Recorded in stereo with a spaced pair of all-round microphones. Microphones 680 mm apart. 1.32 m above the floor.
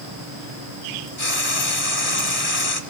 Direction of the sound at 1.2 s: 55° left (ahead or behind).